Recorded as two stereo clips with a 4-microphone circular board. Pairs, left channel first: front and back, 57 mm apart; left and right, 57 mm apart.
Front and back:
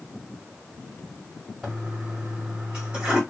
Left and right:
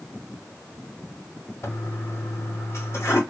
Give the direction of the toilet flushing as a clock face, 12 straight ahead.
8 o'clock.